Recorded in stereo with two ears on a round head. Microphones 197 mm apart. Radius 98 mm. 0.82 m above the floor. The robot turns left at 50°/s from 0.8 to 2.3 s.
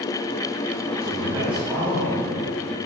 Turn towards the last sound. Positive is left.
turn(degrees=150)